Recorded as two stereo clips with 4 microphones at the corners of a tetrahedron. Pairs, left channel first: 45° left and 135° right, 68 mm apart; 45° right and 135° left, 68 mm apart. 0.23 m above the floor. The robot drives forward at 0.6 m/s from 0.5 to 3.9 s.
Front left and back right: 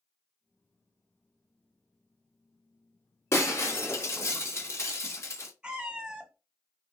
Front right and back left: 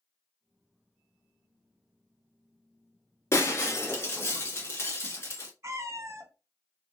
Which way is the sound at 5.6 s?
150° left.